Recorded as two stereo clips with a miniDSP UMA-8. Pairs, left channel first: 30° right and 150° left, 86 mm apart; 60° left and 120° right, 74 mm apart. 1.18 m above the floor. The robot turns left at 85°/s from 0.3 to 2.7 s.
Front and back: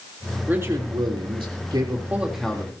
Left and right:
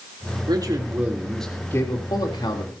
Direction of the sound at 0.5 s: 140° right.